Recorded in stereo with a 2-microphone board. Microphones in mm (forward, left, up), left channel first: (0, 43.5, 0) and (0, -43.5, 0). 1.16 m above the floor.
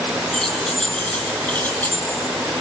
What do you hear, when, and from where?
0.3 s keys jangling: 5° left (ahead or behind), 7 m; by 2.2 s 25° left (ahead or behind), 7 m